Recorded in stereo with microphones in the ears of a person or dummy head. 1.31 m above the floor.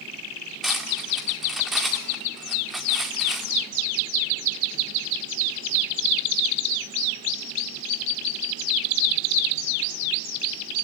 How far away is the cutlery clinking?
About 1.7 m.